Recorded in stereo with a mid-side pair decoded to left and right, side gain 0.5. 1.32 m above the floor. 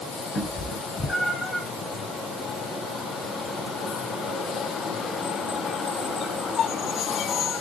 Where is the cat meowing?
30° left, 3.5 m.